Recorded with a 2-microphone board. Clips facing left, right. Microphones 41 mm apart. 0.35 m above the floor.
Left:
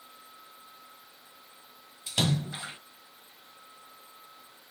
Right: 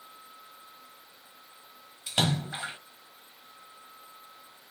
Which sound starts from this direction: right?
A splash, at 2.1 s.